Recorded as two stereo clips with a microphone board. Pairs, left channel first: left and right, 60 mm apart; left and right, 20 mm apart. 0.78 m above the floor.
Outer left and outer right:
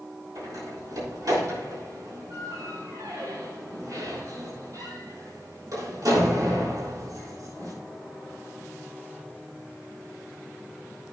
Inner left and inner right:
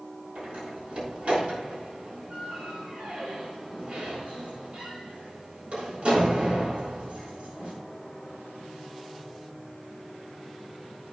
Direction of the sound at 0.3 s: 75° right (ahead or behind).